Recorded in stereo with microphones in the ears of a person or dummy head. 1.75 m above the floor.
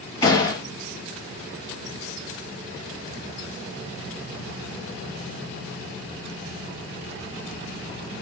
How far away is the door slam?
About 1.9 m.